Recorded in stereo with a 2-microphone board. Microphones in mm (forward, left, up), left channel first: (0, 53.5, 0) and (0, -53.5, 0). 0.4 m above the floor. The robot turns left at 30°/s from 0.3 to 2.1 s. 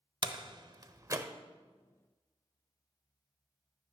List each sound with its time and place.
0.2 s a door slam: 45° right (ahead or behind), 0.8 m; by 1.3 s 30° right (ahead or behind), 0.8 m